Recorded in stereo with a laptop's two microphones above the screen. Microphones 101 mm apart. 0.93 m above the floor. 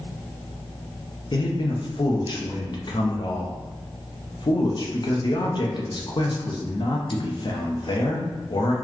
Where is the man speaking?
50° left (ahead or behind), 0.7 m.